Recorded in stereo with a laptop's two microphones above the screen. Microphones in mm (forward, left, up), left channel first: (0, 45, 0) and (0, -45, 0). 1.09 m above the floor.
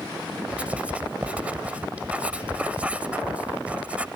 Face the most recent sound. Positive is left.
turn(degrees=-15)  # may be behind; listen again after turning